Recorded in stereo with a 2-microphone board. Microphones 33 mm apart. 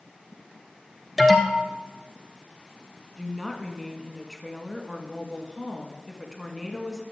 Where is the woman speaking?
Centre (ahead or behind), 1.6 m.